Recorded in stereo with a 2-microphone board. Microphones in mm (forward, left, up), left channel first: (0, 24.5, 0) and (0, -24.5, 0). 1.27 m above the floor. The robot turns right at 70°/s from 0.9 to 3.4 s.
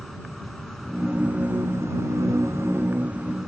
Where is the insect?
Straight behind; by 3.5 s 5° right.